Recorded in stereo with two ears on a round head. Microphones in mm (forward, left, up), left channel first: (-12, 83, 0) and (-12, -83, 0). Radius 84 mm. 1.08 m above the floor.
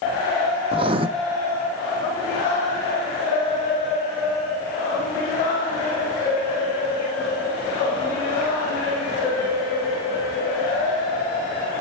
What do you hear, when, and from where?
0.7 s writing: 30° right (ahead or behind), 0.6 m